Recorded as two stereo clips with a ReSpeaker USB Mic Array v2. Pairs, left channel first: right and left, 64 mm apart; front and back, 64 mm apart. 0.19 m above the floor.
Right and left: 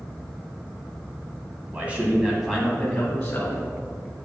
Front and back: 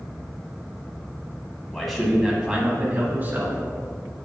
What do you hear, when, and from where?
1.7 s a man speaking: 85° left, 1.3 m; by 3.6 s 145° right, 1.5 m